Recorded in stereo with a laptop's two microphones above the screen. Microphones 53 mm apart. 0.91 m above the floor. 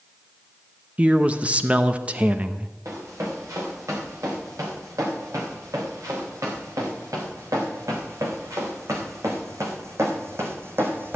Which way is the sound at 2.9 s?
75° right (ahead or behind).